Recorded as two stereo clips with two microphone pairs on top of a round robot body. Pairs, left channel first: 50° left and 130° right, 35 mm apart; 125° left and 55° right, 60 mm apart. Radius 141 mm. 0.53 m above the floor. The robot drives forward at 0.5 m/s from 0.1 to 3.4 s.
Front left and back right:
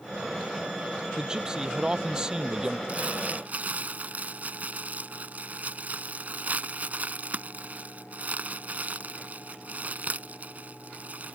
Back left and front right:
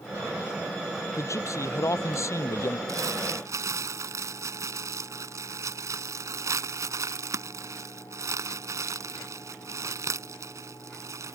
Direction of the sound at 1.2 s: 155° left.